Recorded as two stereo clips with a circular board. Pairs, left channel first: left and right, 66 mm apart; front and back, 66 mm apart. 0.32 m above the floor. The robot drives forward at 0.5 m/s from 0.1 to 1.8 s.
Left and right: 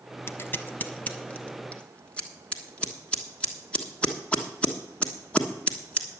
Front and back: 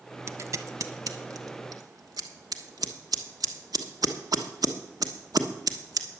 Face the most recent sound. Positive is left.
turn(degrees=160)